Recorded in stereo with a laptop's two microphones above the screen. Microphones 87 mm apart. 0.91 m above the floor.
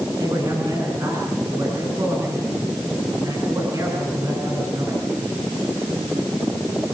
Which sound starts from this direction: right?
A man speaking, at 0.2 s.